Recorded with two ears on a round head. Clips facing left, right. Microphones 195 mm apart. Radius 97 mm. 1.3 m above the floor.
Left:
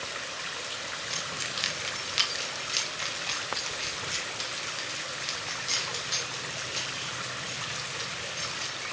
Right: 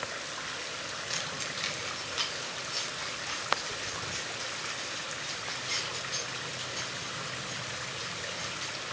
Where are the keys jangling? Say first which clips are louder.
Even; 10° right (ahead or behind), 0.6 m; by 8.8 s 65° left (ahead or behind), 4 m.